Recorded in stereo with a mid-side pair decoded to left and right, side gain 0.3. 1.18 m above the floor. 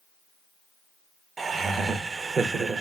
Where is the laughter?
60° right, 0.5 m.